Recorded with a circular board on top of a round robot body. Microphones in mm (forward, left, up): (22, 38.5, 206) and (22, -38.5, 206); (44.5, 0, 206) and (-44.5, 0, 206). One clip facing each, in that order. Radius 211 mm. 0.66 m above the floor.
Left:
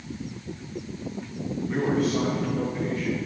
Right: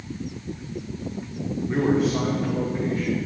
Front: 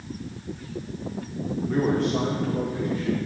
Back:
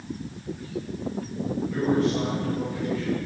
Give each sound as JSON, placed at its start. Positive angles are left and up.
{"t": 1.7, "sound": "a man speaking", "azimuth_deg": -20, "distance_m": 2.0}